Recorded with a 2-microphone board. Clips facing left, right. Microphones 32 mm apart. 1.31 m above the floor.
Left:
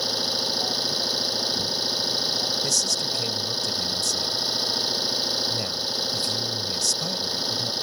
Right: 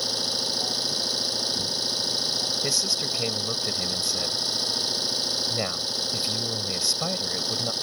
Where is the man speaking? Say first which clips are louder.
Left 1 dB; 25° right (ahead or behind).